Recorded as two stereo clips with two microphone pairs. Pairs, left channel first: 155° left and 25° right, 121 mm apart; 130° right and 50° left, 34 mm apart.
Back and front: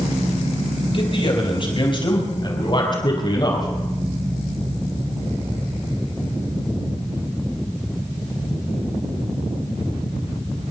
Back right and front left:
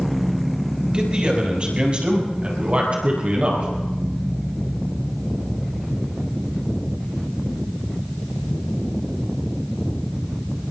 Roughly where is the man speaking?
Behind left.